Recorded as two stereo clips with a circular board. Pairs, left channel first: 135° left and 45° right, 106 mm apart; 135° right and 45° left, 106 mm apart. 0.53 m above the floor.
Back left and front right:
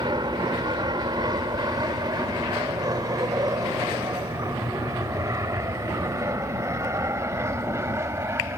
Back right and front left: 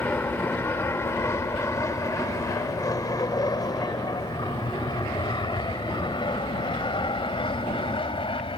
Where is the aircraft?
70° right; by 8.6 s 110° right.